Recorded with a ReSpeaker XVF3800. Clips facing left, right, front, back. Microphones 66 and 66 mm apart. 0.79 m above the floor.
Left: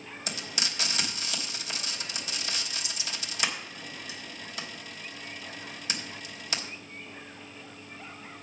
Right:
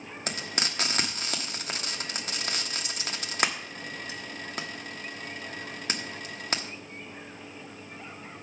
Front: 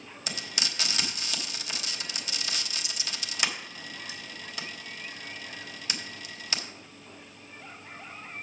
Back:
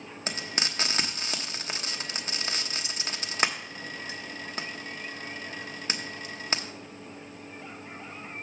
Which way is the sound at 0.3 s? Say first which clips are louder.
Right 3 dB, back 3 dB; 130° right.